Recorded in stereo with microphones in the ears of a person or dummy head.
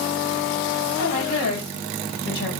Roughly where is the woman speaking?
Left.